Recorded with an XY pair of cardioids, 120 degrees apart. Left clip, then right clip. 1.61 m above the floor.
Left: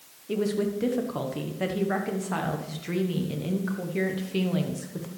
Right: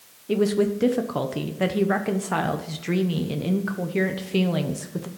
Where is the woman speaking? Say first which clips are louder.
Right 5 dB; 30° right, 1.0 m.